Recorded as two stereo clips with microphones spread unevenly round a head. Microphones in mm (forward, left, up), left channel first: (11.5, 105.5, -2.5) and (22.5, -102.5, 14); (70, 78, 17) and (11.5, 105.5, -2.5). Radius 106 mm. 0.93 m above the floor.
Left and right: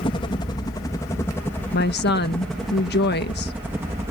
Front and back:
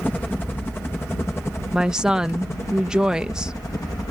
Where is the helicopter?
45° left; by 4.1 s 10° right.